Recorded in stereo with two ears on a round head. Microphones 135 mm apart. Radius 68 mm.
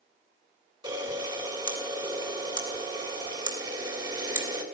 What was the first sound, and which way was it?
A camera shutter, 30° right (ahead or behind).